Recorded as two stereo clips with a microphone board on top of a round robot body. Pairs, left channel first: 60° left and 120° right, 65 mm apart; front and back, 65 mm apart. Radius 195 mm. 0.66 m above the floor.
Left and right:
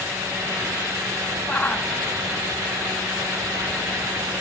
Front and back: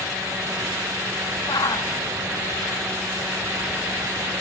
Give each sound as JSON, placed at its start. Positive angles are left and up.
{"t": 1.5, "sound": "a shout", "azimuth_deg": -10}